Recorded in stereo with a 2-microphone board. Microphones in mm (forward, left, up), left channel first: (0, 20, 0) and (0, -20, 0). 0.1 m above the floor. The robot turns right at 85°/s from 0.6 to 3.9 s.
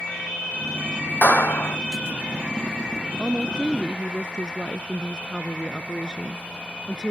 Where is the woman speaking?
20° right (ahead or behind).